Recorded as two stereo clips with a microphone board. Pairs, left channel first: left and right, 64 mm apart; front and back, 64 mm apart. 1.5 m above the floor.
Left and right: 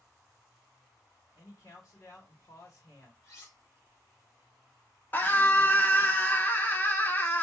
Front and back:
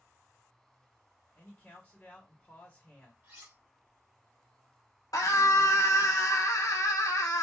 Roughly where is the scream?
Ahead left.